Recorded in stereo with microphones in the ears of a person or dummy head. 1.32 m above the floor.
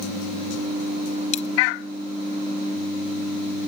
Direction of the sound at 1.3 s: 35° left (ahead or behind).